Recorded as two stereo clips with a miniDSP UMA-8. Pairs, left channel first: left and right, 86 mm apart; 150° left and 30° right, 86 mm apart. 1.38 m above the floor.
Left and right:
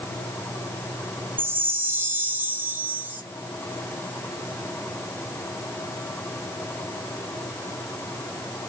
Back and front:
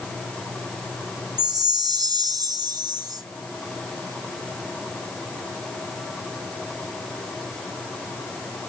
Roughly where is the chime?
Ahead right.